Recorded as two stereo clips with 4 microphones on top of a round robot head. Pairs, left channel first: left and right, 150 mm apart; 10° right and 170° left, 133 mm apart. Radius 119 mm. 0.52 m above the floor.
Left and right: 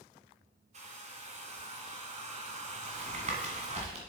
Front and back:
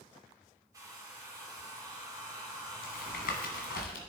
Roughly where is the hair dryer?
Behind right.